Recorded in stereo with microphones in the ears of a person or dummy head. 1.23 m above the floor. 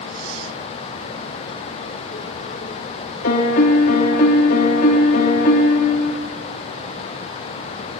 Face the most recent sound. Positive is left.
turn(degrees=50)  # may be behind; listen again after turning